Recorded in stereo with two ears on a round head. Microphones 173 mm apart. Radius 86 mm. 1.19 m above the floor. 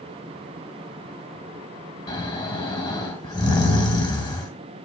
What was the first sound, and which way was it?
Snoring, 25° left (ahead or behind).